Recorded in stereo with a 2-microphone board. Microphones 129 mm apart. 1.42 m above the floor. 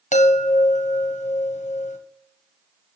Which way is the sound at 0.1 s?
70° left (ahead or behind).